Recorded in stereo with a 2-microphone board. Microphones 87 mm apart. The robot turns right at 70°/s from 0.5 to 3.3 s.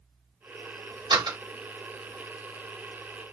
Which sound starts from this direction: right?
A door slam, at 1.1 s.